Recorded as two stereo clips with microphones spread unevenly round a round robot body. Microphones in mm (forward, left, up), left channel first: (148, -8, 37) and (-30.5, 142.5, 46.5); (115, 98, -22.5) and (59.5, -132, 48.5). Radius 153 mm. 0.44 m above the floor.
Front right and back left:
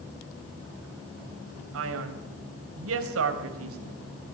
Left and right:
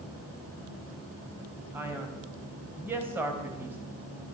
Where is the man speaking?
165° left, 3 m.